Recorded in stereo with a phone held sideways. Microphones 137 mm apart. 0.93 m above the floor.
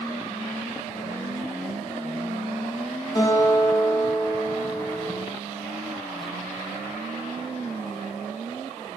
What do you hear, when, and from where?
3.1 s a guitar: 30° left (ahead or behind), 4.5 m